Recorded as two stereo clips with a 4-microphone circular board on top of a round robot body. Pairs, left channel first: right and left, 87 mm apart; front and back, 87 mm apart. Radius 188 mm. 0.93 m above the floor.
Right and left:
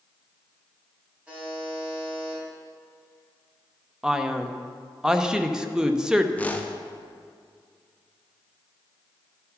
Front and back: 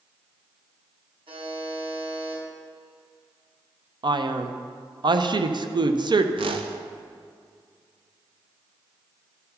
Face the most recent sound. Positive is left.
turn(degrees=-165)